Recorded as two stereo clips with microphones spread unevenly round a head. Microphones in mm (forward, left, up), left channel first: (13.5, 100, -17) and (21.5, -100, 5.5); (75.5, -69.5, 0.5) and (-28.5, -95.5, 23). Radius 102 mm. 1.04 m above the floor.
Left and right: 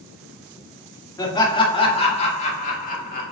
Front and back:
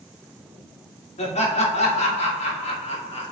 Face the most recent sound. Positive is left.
turn(degrees=50)